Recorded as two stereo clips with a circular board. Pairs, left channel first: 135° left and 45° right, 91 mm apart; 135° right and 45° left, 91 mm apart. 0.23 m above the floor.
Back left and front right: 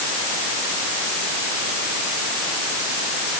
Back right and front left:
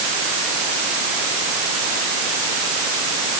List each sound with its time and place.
Only background noise.